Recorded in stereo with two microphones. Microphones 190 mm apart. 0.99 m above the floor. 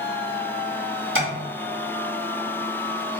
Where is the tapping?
85° right, 1.2 m.